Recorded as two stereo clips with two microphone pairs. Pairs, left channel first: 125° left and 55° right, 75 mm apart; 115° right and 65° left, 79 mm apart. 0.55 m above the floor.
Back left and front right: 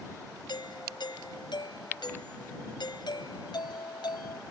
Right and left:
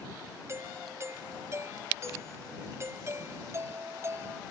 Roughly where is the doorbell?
Behind left.